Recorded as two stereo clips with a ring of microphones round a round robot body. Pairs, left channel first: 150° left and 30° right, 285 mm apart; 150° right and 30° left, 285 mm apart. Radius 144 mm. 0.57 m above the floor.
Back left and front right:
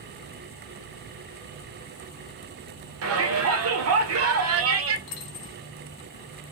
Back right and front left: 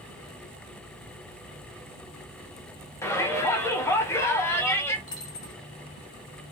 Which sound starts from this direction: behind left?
A dropped coin, at 5.1 s.